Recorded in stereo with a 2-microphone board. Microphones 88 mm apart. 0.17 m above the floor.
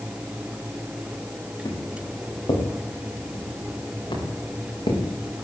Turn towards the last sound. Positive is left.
turn(degrees=70)  # may be behind; listen again after turning